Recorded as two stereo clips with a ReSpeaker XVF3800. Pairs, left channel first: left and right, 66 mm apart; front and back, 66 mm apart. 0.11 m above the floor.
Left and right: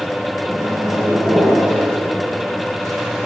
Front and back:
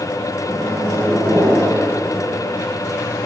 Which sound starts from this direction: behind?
A microwave, at 0.5 s.